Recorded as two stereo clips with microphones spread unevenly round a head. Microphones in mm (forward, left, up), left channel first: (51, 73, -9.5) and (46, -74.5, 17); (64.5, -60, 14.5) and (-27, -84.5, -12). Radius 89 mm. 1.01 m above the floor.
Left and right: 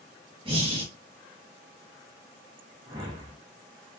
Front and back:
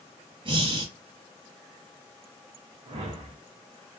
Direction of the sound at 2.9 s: 160° right.